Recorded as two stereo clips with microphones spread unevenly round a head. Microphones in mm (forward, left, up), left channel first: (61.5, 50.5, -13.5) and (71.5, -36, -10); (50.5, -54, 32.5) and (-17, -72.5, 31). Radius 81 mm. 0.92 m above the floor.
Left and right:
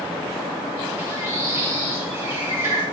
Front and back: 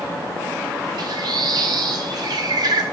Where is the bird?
150° right, 1.3 m.